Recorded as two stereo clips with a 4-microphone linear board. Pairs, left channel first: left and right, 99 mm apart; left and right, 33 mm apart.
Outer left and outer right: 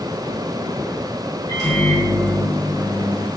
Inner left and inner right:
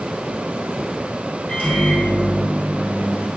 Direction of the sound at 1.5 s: 40° left (ahead or behind).